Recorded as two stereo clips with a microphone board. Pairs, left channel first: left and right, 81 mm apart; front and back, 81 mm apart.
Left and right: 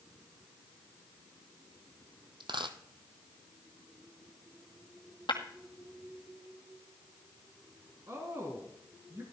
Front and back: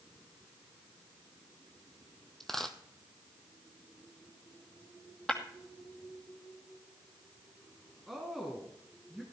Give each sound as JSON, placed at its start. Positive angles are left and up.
{"t": 2.4, "sound": "a dropped coin", "azimuth_deg": -85, "distance_m": 1.2}
{"t": 5.3, "sound": "breaking glass", "azimuth_deg": 80, "distance_m": 2.0}
{"t": 8.1, "sound": "a woman speaking", "azimuth_deg": -95, "distance_m": 2.0}